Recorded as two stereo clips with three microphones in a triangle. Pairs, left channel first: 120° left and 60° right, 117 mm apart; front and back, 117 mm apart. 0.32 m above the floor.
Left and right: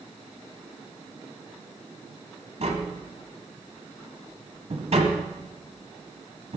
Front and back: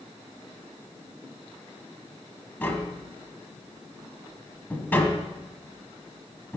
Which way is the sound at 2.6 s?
70° right.